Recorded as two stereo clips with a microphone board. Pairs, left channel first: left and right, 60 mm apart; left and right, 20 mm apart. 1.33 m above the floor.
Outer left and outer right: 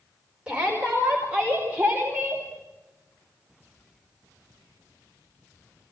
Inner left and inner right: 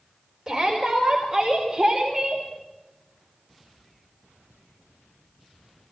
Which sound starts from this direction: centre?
A shout, at 0.5 s.